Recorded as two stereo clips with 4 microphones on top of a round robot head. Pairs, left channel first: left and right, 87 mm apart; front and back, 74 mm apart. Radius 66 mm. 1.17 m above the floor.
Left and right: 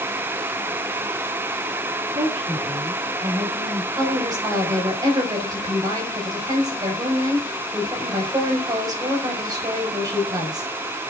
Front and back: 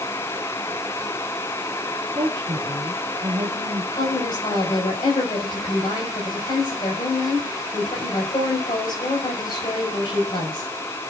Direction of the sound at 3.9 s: 45° right.